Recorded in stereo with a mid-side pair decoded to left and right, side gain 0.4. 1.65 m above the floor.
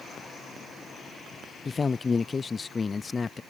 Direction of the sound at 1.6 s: 35° left.